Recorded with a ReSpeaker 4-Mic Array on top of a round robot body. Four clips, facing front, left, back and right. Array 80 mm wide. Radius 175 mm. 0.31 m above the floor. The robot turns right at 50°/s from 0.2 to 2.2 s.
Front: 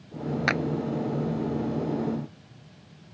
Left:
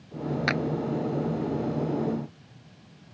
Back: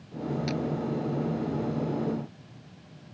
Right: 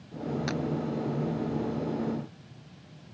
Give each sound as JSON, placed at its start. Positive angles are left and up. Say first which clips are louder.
{"t": 0.5, "sound": "a clap", "louder": "left 7 dB, front 8 dB", "azimuth_deg": 30}